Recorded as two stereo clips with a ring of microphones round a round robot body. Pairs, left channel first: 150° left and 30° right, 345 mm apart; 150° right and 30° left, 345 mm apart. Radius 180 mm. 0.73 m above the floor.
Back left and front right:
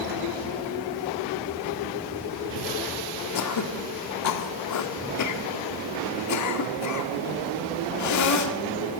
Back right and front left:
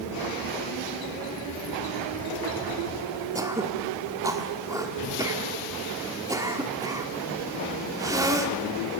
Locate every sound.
3.4 s throat clearing: 110° left, 1.5 m